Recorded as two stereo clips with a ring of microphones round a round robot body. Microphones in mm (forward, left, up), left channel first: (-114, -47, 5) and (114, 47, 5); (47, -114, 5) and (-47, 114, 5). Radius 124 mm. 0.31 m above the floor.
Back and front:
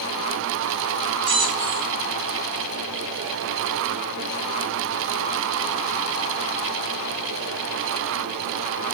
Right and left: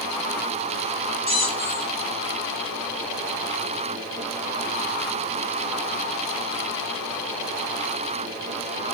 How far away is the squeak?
About 5 m.